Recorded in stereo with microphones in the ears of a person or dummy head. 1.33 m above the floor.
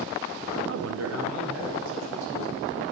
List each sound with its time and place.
0.7 s a man speaking: 55° right (ahead or behind), 0.7 m; by 2.8 s 75° right (ahead or behind), 3.5 m